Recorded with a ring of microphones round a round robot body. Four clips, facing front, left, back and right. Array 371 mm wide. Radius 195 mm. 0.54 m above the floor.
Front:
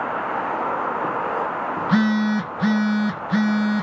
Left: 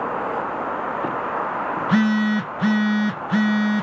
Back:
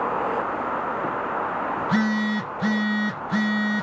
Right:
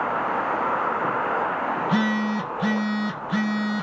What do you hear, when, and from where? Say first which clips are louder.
1.8 s a phone buzzing: left 6 dB, front 5 dB; 50° left, 0.7 m